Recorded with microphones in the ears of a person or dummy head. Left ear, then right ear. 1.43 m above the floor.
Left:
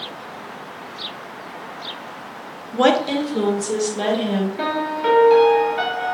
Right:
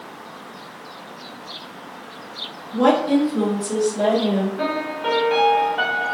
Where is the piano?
25° left (ahead or behind), 1.7 m.